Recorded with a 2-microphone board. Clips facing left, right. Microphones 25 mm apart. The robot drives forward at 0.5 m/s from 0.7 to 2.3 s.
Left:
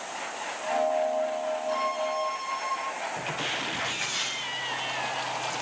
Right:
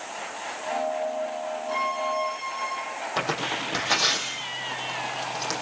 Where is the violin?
5° right (ahead or behind), 8 m.